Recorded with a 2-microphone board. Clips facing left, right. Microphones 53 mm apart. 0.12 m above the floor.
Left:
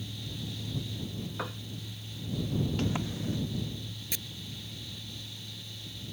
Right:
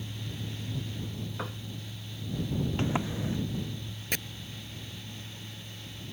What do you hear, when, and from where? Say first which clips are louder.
1.4 s a piano: left 1 dB; 5° left (ahead or behind)
2.8 s a sliding door: right 2 dB; 25° right (ahead or behind)
4.1 s chopping: right 8 dB; 55° right (ahead or behind)